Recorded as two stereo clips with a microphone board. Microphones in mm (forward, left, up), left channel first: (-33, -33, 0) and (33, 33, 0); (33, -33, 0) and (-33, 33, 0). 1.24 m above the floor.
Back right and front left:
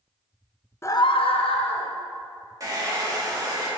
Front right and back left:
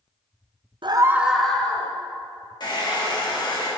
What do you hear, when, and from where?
0.8 s a scream: 165° left, 0.5 m; by 1.9 s 120° right, 1.6 m
2.6 s a hair dryer: 5° right, 1.5 m